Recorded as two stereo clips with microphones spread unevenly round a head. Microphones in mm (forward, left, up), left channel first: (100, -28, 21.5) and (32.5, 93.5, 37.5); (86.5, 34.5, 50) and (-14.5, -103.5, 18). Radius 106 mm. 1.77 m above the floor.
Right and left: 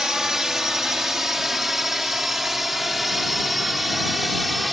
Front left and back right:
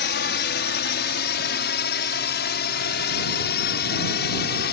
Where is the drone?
30° left.